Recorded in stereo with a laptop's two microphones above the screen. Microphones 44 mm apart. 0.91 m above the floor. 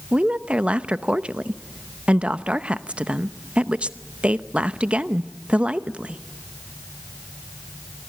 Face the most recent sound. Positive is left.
turn(degrees=-30)  # may be behind; listen again after turning